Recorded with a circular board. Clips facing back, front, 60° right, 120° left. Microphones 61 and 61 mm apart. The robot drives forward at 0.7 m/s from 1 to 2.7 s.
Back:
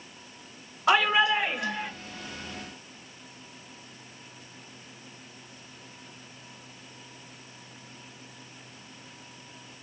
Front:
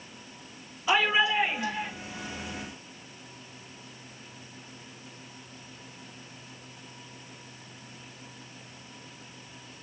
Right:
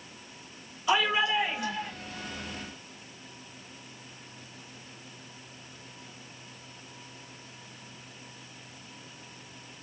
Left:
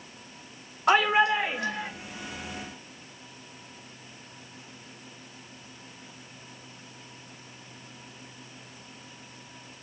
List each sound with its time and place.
0.9 s a shout: 150° left, 5.5 m; by 1.9 s 155° left, 6 m